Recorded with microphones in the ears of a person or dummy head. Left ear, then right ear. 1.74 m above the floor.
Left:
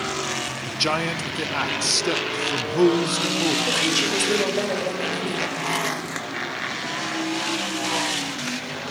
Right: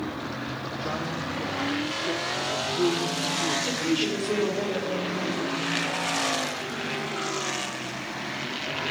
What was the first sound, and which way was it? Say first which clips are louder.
A man speaking: left 9 dB; 75° left (ahead or behind).